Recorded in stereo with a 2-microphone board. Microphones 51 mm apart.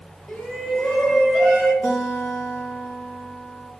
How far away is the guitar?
About 3.5 m.